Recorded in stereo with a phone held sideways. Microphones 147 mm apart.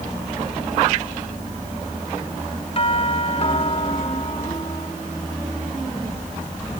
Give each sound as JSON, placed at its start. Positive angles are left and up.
{"t": 2.8, "sound": "a doorbell", "side_deg": 45}